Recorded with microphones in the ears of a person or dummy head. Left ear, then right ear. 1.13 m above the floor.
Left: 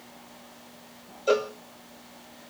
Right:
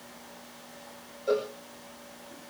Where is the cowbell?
60° left (ahead or behind), 1.5 m.